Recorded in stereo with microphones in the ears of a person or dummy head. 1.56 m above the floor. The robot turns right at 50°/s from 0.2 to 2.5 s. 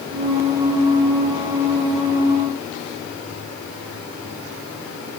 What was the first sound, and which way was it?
Only background noise.